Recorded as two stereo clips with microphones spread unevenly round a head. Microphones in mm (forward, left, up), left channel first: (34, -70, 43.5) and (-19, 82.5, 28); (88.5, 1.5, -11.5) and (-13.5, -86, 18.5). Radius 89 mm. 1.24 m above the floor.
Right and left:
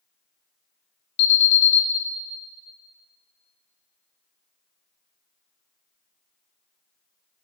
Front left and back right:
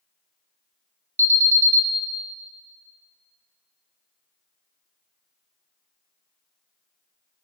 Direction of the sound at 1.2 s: 65° right.